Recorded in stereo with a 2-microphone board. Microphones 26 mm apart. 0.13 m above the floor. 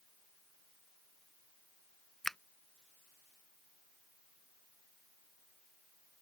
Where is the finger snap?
15° left (ahead or behind).